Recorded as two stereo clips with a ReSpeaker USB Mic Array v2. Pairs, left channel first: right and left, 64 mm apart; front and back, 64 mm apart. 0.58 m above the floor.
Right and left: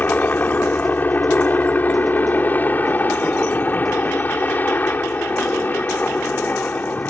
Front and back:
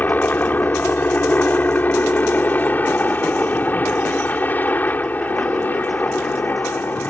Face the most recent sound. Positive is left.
turn(degrees=-45)